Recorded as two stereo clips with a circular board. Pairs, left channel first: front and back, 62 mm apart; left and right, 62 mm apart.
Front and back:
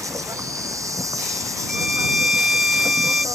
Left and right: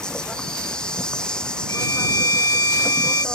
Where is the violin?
100° left.